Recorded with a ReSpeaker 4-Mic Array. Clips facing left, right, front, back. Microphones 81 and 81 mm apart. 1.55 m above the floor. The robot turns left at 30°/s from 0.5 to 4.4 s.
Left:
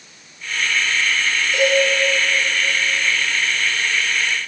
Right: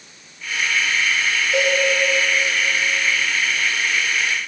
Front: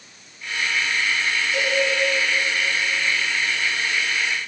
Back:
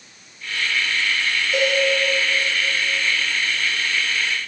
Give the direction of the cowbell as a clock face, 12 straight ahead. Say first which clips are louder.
Left 3 dB, back 5 dB; 5 o'clock.